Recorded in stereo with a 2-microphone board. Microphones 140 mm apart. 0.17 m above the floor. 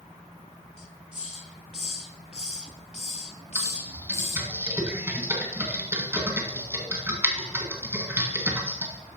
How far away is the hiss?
About 0.6 m.